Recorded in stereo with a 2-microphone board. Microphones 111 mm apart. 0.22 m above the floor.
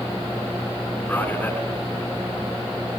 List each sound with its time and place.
1.1 s a man speaking: 15° left (ahead or behind), 3 m